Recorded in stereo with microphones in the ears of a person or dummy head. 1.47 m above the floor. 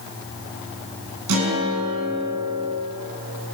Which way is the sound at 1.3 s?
85° right.